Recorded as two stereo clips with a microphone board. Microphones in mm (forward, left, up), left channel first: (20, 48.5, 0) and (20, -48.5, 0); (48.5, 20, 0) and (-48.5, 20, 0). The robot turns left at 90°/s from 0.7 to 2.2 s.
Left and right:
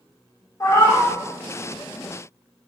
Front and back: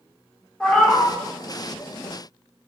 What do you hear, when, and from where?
0.6 s a cat meowing: 75° left, 0.5 m; by 1.1 s 40° left, 0.5 m